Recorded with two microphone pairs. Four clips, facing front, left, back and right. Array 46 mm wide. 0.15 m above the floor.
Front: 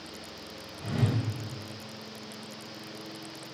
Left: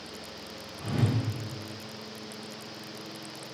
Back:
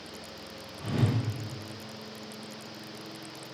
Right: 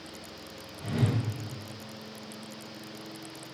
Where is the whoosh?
155° left, 1.9 m.